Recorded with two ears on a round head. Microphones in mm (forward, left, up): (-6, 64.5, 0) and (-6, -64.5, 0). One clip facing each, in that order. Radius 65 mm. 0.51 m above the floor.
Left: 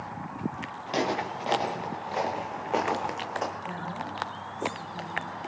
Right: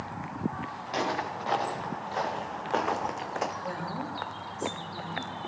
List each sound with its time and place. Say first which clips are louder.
0.9 s footsteps: left 3 dB; 30° left (ahead or behind), 3.5 m; by 3.5 s 5° right (ahead or behind), 1.5 m
3.6 s a woman speaking: right 1 dB; 50° right (ahead or behind), 7 m